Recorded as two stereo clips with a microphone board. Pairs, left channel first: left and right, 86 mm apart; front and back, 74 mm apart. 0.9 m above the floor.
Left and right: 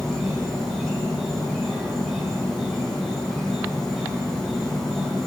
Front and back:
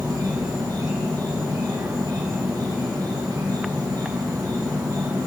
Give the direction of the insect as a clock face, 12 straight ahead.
6 o'clock.